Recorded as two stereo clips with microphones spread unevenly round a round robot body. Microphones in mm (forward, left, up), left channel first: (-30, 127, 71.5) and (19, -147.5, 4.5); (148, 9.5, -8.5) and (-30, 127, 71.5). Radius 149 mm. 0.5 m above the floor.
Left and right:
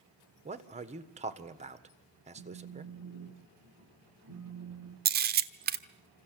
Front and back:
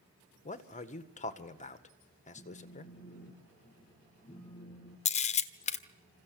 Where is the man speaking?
35° right, 1.7 m.